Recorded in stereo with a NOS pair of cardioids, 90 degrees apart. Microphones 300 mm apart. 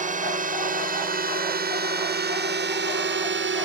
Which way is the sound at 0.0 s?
25° right.